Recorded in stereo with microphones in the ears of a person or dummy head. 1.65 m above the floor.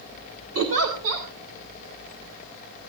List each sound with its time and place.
0.6 s a giggle: 80° right, 6 m